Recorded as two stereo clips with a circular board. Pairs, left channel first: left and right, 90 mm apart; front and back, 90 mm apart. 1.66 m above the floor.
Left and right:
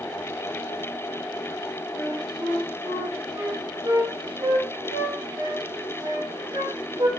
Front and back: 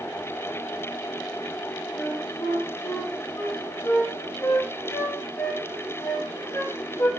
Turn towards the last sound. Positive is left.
turn(degrees=-50)